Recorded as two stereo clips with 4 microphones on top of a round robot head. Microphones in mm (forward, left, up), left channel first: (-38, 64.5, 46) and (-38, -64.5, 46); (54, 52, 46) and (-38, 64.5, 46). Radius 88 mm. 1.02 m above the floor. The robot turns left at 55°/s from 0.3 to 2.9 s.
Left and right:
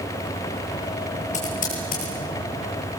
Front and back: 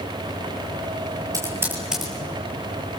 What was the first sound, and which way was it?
Typing on a keyboard, 120° left.